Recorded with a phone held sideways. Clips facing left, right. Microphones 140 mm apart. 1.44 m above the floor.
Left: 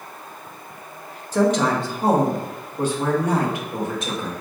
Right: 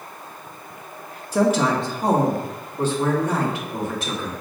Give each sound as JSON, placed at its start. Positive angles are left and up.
{"t": 1.3, "sound": "a woman speaking", "side_deg": -10, "distance_m": 0.6}